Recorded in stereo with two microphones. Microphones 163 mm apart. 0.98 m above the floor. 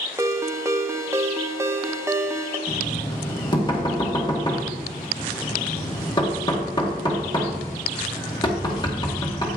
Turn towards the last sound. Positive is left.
turn(degrees=25)  # may be behind; listen again after turning